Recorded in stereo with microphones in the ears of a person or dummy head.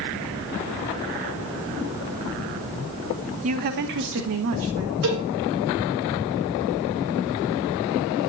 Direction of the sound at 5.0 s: 75° right (ahead or behind).